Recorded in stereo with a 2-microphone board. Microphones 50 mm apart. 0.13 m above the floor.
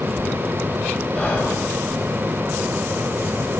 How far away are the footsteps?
I don't hear footsteps.